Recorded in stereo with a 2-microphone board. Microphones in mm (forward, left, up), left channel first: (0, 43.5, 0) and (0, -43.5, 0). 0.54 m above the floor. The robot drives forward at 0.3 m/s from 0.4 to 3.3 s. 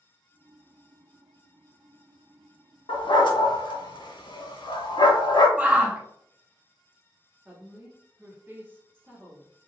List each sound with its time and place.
2.9 s a dog barking: 70° left (ahead or behind), 0.5 m; by 5.5 s 60° left (ahead or behind), 0.6 m
5.6 s a shout: 15° right (ahead or behind), 0.8 m
7.5 s a woman speaking: 25° right (ahead or behind), 1.1 m